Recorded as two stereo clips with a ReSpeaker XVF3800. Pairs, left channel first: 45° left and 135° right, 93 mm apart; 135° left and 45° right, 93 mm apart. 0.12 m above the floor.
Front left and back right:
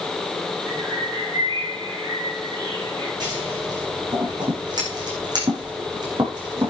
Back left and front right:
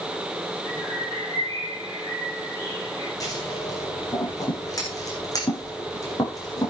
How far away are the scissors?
About 8 m.